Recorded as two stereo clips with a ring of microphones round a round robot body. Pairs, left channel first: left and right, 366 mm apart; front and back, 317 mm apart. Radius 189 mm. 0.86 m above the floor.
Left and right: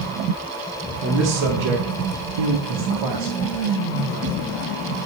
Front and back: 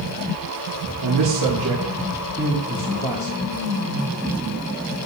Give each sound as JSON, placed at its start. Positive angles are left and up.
{"t": 1.0, "sound": "a man speaking", "azimuth_deg": -145, "distance_m": 1.7}